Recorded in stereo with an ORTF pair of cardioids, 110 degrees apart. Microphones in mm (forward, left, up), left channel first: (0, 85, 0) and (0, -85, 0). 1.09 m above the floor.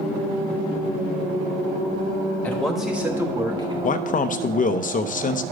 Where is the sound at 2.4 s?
10° left, 2.0 m; by 3.7 s 30° right, 2.5 m.